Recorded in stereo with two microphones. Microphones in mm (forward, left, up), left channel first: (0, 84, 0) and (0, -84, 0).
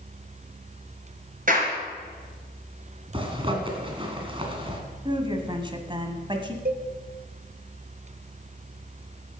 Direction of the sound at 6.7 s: 60° right (ahead or behind).